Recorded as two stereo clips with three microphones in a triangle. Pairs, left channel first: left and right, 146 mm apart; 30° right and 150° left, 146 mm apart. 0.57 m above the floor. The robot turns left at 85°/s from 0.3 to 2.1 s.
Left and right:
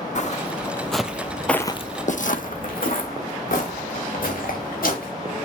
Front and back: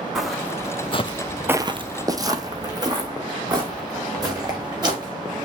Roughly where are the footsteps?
Ahead left.